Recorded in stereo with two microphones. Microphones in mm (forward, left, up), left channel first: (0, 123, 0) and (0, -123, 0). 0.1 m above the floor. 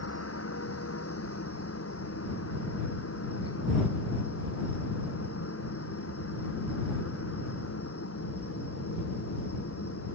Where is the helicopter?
70° left (ahead or behind).